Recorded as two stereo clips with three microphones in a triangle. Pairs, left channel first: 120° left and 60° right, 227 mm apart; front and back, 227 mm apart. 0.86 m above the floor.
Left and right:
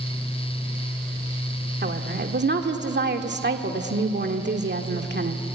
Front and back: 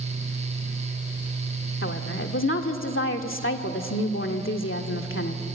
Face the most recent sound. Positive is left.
turn(degrees=-20)